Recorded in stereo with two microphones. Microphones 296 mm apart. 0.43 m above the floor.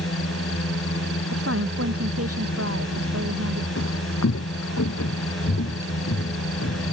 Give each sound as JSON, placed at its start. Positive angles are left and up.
{"t": 0.0, "sound": "a drone", "side_deg": 45}
{"t": 1.3, "sound": "a woman speaking", "side_deg": -50}
{"t": 3.8, "sound": "footsteps", "side_deg": 60}